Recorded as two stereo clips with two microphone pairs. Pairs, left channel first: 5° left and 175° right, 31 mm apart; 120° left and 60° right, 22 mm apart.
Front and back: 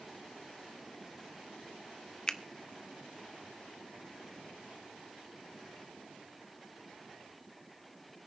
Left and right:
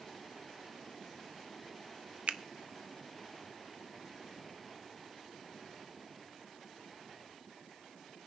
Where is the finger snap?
55° right, 0.8 m.